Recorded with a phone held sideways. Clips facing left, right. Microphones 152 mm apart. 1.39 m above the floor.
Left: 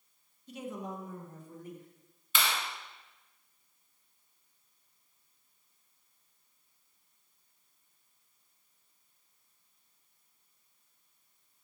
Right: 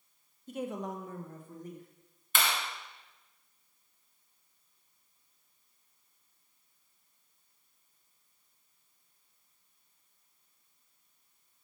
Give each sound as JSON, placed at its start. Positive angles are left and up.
{"t": 0.5, "sound": "a woman speaking", "side_deg": -45, "distance_m": 0.9}
{"t": 2.4, "sound": "a clap", "side_deg": -50, "distance_m": 1.2}